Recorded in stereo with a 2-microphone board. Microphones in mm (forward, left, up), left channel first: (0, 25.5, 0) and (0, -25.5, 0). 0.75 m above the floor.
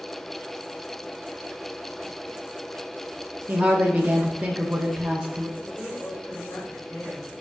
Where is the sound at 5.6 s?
30° left (ahead or behind), 3.5 m.